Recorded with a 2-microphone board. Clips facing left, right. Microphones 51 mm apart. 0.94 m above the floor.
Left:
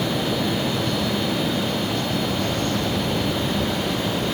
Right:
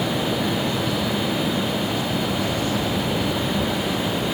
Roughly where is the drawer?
No drawer in this recording.